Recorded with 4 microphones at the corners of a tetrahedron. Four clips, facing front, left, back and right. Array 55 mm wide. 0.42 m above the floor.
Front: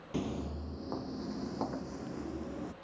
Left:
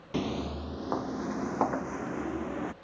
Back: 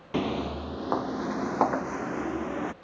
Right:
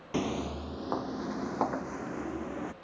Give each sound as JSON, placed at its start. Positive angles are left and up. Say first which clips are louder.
{"t": 0.1, "sound": "footsteps", "louder": "even, back 8 dB", "azimuth_deg": -165}